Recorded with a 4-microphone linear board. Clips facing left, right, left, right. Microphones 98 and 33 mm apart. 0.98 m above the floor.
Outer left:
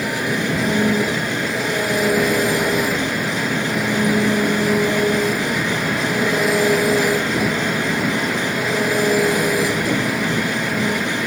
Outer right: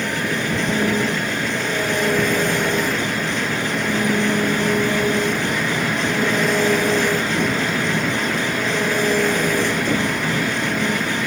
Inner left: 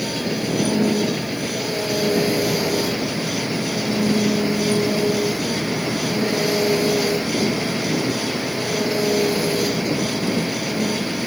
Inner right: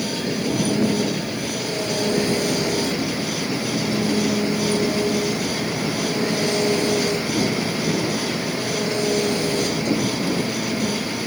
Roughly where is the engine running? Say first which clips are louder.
Outer left 2 dB, even; centre.